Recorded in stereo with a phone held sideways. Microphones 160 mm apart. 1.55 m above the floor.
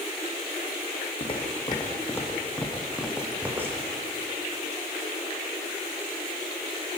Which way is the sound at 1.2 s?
35° left (ahead or behind).